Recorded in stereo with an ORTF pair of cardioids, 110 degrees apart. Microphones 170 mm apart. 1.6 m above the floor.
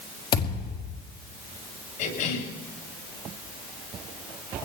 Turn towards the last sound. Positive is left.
turn(degrees=60)